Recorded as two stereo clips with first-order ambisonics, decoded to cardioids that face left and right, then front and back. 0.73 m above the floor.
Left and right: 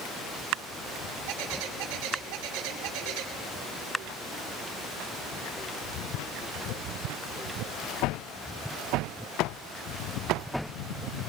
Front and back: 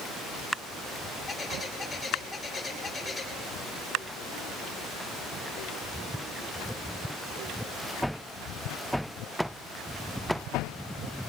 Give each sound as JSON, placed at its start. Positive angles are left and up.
{"t": 1.3, "sound": "a bird", "azimuth_deg": -80, "distance_m": 5.0}